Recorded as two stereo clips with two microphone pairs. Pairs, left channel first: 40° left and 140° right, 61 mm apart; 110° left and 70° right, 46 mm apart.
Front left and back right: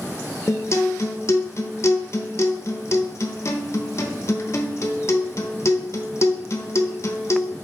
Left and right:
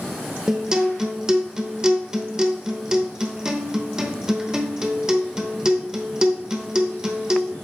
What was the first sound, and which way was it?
A guitar, 5° left.